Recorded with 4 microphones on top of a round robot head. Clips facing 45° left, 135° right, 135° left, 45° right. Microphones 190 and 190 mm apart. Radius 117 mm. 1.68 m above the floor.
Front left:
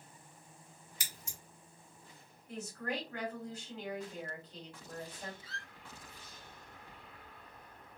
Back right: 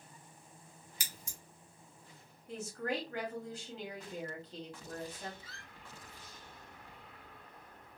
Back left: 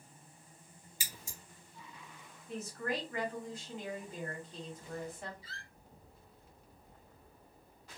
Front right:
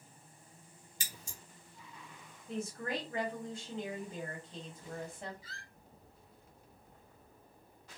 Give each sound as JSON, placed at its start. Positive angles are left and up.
{"t": 1.0, "sound": "scissors", "azimuth_deg": -145, "distance_m": 1.3}
{"t": 2.5, "sound": "a woman speaking", "azimuth_deg": -110, "distance_m": 1.4}
{"t": 5.4, "sound": "a squeak", "azimuth_deg": -50, "distance_m": 2.0}